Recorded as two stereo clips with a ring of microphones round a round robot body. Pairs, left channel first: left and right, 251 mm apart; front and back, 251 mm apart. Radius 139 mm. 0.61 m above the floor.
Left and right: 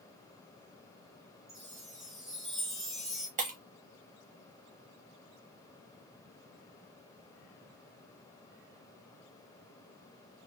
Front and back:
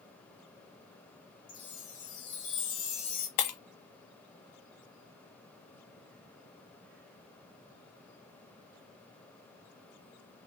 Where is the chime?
Straight ahead, 2.5 m.